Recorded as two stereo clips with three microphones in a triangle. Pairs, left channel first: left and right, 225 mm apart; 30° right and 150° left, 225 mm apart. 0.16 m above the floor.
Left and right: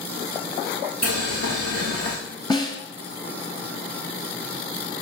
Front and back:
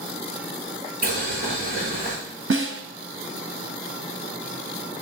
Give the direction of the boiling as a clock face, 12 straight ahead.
9 o'clock.